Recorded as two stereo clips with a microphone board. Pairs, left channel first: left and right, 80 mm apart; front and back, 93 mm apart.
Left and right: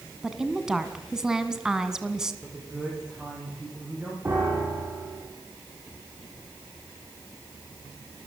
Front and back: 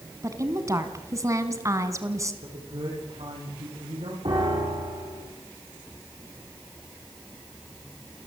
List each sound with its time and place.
0.2 s a woman speaking: 170° right, 1.8 m
2.4 s a man speaking: 170° right, 9 m
4.2 s a piano: 155° right, 7.5 m